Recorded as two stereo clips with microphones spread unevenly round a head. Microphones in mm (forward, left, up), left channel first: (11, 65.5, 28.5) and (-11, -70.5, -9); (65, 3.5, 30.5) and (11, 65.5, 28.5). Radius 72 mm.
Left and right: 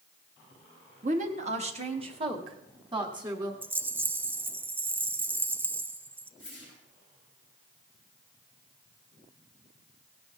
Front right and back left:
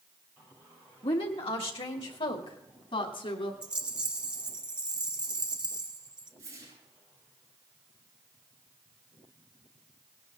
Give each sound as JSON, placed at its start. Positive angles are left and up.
{"t": 1.0, "sound": "a woman speaking", "azimuth_deg": -75, "distance_m": 1.6}
{"t": 3.6, "sound": "a rattle", "azimuth_deg": -155, "distance_m": 0.7}
{"t": 6.4, "sound": "a whoosh", "azimuth_deg": 175, "distance_m": 7.0}